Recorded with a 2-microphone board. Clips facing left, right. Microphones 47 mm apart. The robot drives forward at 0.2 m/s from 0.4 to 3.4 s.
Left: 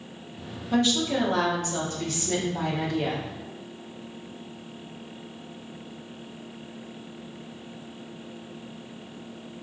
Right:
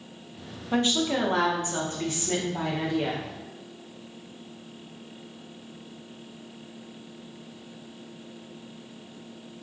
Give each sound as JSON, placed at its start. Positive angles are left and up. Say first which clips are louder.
{"t": 0.7, "sound": "a woman speaking", "louder": "left 1 dB", "side_deg": -30, "distance_m": 0.6}